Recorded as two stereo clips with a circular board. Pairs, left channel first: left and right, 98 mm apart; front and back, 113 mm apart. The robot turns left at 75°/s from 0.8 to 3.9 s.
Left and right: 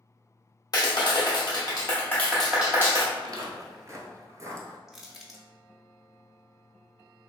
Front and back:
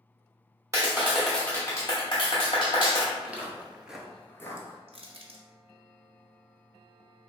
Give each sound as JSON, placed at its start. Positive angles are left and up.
{"t": 0.7, "sound": "a clap", "azimuth_deg": 125, "distance_m": 0.9}
{"t": 3.1, "sound": "footsteps", "azimuth_deg": -100, "distance_m": 0.7}
{"t": 4.9, "sound": "crushing", "azimuth_deg": -175, "distance_m": 0.6}